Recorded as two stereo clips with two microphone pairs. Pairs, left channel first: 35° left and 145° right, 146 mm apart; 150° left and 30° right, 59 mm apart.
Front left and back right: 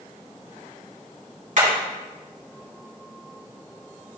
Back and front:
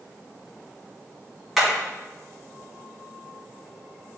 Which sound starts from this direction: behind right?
Hammering, at 1.6 s.